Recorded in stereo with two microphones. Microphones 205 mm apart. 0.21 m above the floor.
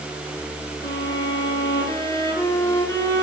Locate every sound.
0.8 s a violin: 15° left (ahead or behind), 5.5 m